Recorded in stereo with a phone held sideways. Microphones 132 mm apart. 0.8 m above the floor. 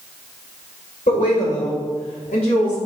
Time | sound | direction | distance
1.1 | a woman speaking | 75° left (ahead or behind) | 2.5 m